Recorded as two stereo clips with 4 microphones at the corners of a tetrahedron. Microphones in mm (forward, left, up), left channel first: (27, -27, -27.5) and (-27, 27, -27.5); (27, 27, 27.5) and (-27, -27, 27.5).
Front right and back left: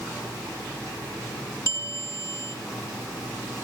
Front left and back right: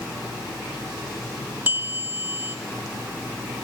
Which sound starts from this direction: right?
A bell, at 1.7 s.